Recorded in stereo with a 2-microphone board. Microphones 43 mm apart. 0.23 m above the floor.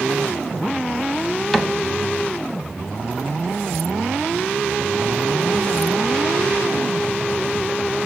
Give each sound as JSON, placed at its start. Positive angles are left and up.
{"t": 1.5, "sound": "a cupboard door", "side_deg": 0, "distance_m": 0.7}